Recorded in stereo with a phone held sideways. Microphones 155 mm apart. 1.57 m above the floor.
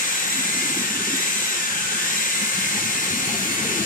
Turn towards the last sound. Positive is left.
turn(degrees=60)  # may be behind; listen again after turning